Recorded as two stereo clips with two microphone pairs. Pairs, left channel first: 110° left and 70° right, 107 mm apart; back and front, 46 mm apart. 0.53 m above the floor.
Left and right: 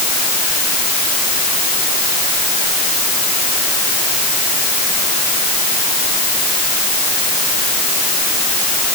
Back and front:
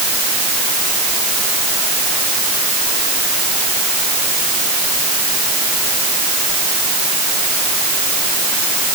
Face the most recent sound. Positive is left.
No sound to turn to.